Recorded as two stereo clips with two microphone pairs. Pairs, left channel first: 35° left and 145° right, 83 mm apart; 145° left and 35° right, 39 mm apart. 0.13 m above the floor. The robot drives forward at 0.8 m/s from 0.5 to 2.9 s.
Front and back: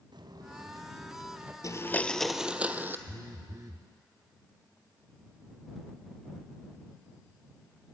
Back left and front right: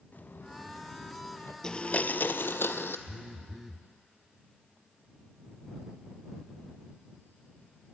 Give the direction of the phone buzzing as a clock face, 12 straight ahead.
4 o'clock.